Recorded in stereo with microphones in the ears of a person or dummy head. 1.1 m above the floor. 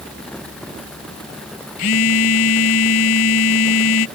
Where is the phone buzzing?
35° left (ahead or behind).